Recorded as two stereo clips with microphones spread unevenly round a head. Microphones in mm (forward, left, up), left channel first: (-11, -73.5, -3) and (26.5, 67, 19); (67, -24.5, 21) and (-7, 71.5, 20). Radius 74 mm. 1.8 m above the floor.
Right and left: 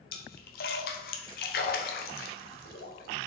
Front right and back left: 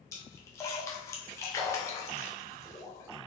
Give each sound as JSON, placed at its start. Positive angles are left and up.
{"t": 0.1, "sound": "a splash", "azimuth_deg": -120, "distance_m": 0.9}